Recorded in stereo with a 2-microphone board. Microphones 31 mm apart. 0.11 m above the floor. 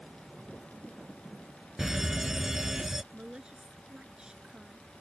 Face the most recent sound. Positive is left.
turn(degrees=-25)  # may be behind; listen again after turning